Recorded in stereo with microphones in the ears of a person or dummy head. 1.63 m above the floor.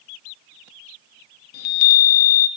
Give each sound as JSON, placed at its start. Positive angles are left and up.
{"t": 1.5, "sound": "a chime", "side_deg": 55, "distance_m": 0.5}